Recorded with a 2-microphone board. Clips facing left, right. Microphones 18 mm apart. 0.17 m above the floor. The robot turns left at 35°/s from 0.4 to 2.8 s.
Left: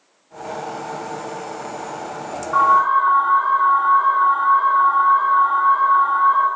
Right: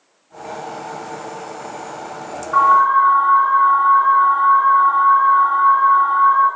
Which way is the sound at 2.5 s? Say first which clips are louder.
Right 2 dB; centre (ahead or behind).